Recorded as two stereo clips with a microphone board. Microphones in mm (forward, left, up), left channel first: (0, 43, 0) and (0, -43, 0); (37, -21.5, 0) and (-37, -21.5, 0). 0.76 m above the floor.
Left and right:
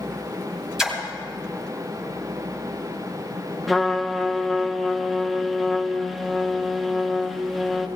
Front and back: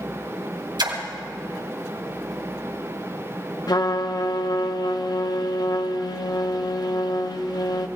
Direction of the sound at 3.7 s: Straight ahead.